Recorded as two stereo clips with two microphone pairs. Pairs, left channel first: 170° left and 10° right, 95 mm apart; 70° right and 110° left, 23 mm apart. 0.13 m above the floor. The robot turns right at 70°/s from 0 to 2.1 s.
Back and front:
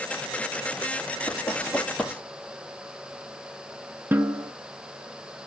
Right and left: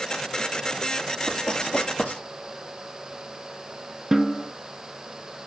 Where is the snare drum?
45° left, 0.7 m.